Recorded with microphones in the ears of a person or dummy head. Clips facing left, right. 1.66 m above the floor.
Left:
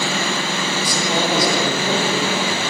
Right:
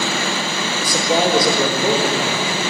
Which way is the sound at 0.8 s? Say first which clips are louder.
Right 5 dB; 45° right (ahead or behind).